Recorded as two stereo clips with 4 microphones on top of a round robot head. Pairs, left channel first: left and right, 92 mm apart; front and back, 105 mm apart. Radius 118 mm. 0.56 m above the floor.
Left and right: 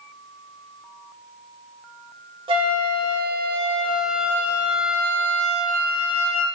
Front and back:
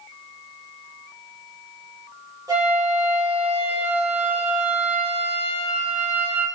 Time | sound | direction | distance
2.5 | a flute | 120° right | 0.6 m